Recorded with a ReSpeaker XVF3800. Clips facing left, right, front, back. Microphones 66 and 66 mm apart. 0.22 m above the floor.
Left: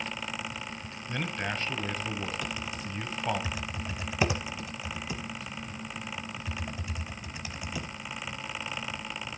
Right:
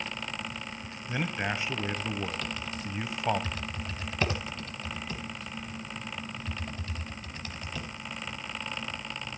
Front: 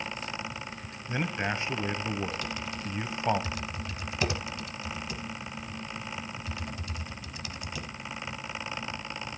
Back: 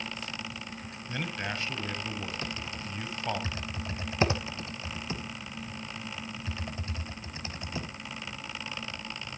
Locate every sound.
1.1 s a man speaking: 30° right, 1.1 m
2.4 s typing on a keyboard: 155° left, 0.9 m